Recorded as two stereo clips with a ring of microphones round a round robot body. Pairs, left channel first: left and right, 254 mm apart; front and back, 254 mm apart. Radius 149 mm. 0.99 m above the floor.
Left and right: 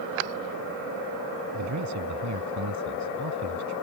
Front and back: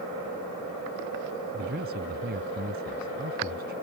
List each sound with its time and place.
1.5 s a man speaking: 120° right